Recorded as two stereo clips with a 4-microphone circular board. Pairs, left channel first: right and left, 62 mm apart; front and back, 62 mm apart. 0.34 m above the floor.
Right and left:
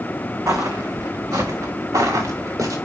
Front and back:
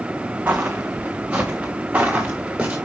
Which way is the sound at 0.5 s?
120° left.